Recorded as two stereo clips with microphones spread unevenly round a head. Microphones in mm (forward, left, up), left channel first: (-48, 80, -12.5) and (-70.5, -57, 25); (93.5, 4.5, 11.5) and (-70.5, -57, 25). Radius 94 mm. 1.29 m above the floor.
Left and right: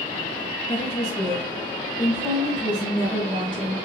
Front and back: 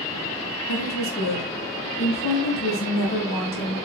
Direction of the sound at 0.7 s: 10° left.